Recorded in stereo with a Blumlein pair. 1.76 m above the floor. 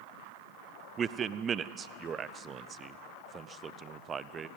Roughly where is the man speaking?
Ahead.